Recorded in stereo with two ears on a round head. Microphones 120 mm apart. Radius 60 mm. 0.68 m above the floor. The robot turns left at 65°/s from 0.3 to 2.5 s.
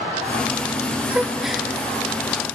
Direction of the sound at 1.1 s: 10° right (ahead or behind).